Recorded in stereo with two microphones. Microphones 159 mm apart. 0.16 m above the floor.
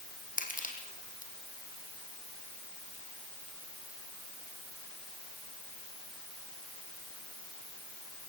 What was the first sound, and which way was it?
Crushing, 60° left (ahead or behind).